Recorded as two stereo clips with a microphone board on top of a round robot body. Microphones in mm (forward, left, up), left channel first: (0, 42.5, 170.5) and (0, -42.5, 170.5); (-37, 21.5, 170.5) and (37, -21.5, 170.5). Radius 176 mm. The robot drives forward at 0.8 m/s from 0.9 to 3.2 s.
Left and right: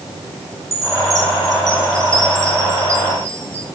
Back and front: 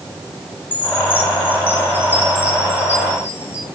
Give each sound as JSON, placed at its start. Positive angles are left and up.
{"t": 0.7, "sound": "a chime", "azimuth_deg": -140, "distance_m": 10.0}